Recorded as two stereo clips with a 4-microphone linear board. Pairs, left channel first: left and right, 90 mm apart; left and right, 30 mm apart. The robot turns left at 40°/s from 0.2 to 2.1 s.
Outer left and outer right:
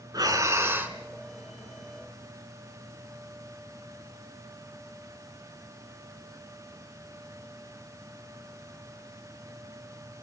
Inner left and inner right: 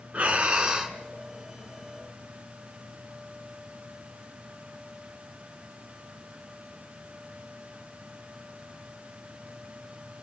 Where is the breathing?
135° right, 1.4 m; by 1.0 s 165° right, 1.4 m.